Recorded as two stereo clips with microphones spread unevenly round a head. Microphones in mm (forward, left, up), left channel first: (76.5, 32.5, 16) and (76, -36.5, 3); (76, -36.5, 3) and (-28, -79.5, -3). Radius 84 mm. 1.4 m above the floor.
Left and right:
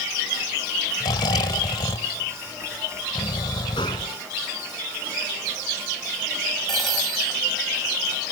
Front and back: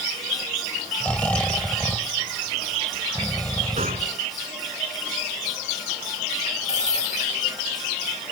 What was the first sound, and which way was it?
Snoring, 105° left.